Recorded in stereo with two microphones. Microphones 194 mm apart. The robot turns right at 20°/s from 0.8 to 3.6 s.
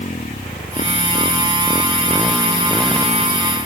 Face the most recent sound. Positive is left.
turn(degrees=-165)